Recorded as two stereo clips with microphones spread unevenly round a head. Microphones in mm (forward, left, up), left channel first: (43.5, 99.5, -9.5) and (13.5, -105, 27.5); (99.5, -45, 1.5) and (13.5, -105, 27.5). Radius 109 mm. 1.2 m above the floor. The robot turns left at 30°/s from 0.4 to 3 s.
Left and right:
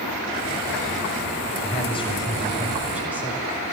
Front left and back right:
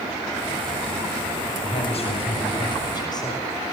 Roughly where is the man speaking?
Ahead left.